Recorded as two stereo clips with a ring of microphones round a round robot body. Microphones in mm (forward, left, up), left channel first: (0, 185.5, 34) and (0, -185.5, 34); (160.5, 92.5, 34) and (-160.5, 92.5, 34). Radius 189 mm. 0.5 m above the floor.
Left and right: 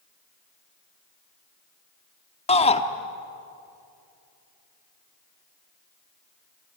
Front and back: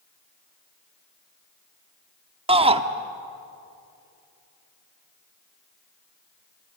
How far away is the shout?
About 1.3 m.